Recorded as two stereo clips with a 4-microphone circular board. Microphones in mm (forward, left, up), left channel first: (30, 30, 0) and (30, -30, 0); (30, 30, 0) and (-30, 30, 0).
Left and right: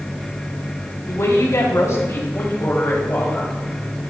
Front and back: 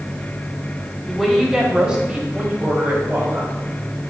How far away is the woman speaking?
About 2.5 m.